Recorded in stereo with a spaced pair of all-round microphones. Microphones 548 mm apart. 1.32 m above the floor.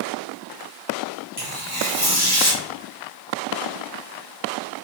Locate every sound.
1.4 s tearing paper: 65° right (ahead or behind), 1.6 m